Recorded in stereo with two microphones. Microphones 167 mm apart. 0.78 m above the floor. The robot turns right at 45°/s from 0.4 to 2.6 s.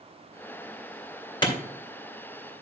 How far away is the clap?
About 2.5 m.